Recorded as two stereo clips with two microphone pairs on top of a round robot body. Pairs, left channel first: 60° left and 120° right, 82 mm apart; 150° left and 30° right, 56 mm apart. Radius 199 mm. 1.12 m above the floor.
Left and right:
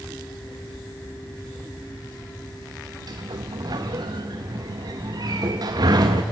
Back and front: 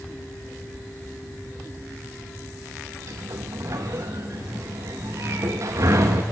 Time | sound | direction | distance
3.1 | a sliding door | 75° right | 0.5 m